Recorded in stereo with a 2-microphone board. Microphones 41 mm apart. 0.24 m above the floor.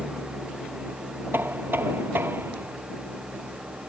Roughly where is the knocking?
Right.